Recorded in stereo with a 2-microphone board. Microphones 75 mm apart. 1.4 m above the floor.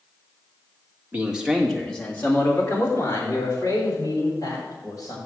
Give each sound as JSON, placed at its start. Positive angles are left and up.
{"t": 1.1, "sound": "a man speaking", "side_deg": -20, "distance_m": 1.6}